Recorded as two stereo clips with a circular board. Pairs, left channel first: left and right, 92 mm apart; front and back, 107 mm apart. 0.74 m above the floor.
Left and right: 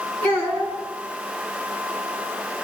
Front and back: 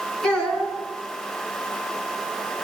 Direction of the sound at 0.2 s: 80° right.